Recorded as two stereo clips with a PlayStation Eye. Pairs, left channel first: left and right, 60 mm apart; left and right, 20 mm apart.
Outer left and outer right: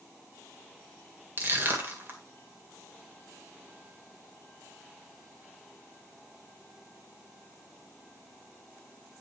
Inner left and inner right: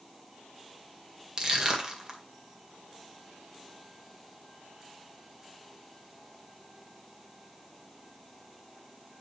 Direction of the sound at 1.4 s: 35° right (ahead or behind).